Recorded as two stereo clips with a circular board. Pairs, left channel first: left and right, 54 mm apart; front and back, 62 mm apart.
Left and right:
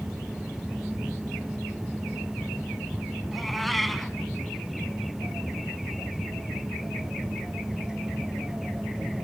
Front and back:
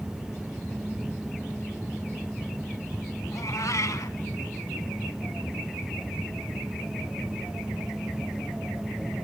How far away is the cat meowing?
About 0.8 m.